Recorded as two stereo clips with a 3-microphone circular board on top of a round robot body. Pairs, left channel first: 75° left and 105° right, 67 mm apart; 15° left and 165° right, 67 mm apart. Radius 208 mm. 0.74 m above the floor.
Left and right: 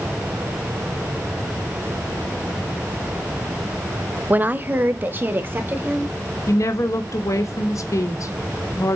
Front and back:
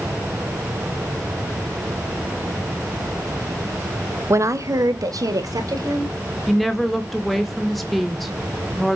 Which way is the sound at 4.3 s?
155° right.